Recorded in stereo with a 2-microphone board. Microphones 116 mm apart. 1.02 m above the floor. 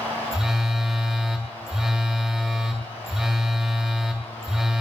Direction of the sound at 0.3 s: 5° right (ahead or behind).